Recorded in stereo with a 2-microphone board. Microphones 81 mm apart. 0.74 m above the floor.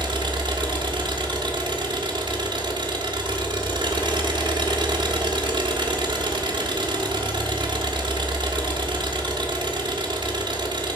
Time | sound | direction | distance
0.0 | an engine running | 75° right (ahead or behind) | 1.5 m